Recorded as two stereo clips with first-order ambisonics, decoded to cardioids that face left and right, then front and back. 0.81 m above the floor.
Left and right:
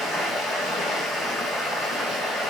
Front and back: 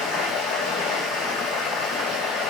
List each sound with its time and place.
0.0 s running water: 30° left, 1.8 m